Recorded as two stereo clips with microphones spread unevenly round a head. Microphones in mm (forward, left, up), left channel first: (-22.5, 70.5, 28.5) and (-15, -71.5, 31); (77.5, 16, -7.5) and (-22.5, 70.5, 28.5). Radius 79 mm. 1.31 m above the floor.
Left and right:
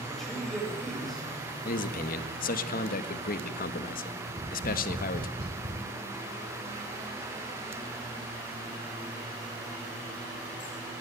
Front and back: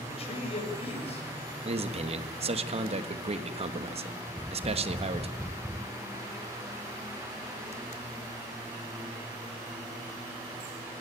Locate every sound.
0.1 s a man speaking: 5° left, 7 m
1.6 s a man speaking: 120° left, 1.6 m
4.3 s tapping: 140° right, 4 m